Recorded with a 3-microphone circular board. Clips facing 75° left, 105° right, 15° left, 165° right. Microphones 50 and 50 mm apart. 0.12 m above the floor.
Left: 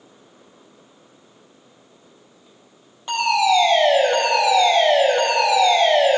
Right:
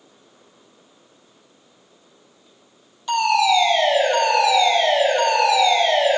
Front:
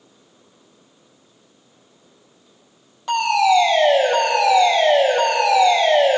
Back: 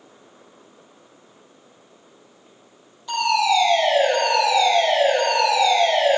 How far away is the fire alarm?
About 5 m.